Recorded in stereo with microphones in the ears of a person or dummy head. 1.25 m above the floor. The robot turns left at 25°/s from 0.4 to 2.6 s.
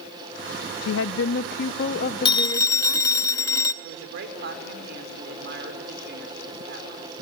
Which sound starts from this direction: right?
A woman speaking, at 3.8 s.